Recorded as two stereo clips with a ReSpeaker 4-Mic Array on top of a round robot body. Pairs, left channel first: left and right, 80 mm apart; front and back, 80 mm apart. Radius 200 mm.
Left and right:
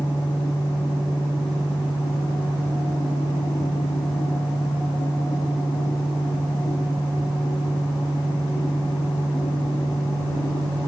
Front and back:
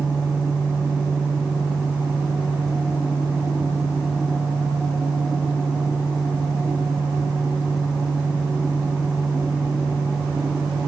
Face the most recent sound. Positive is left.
No sound to turn to.